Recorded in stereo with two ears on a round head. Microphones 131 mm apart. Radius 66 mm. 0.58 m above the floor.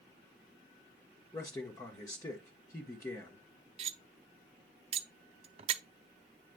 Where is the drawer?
No drawer in this recording.